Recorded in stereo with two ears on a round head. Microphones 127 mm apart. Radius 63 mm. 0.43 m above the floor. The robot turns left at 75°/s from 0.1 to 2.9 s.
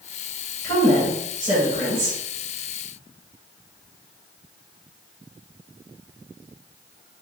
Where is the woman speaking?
30° left, 2.0 m; by 2.2 s 85° right, 2.0 m.